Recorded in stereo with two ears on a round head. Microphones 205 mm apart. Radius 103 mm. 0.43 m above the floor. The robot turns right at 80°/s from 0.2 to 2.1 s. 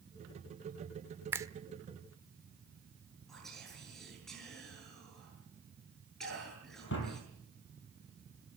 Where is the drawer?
55° left (ahead or behind), 6.5 m.